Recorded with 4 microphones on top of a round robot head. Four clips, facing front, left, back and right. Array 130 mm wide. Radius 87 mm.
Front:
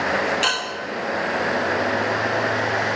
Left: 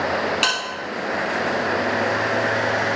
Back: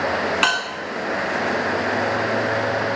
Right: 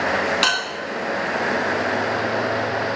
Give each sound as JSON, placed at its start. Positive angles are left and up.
{"t": 0.4, "sound": "a bell", "azimuth_deg": -160, "distance_m": 3.5}